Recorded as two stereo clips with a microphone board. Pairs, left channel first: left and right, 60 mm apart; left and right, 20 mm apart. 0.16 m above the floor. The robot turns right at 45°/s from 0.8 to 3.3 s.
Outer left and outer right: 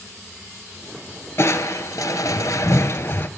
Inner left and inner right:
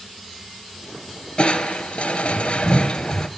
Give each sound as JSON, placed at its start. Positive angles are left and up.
{"t": 1.4, "sound": "crushing", "azimuth_deg": 55, "distance_m": 0.6}